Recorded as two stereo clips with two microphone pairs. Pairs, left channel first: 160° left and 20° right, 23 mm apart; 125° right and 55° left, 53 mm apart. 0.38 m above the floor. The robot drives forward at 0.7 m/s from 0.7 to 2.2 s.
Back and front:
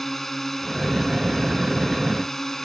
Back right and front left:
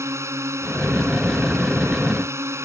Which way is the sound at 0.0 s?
85° left.